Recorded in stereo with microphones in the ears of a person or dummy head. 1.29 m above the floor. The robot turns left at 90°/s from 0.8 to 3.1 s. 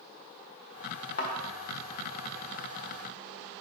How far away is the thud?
About 1.4 m.